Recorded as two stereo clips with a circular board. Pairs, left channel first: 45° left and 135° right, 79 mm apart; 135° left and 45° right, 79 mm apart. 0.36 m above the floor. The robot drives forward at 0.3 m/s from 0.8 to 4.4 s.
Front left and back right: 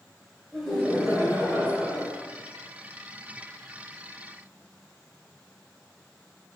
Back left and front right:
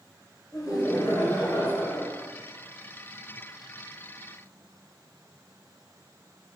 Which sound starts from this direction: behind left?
Laughter, at 0.5 s.